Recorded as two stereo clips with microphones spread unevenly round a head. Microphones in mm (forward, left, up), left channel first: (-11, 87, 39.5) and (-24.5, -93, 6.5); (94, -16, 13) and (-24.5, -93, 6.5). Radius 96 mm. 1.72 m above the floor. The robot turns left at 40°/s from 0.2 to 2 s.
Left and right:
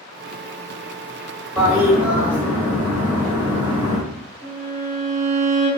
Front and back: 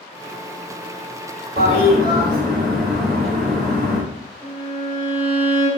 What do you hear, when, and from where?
1.6 s a toilet flushing: 175° left, 1.3 m; by 4.0 s 155° left, 1.3 m
4.4 s a violin: 175° left, 1.6 m